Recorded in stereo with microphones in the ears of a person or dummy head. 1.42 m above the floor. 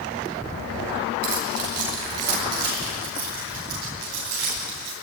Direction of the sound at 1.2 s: 80° right.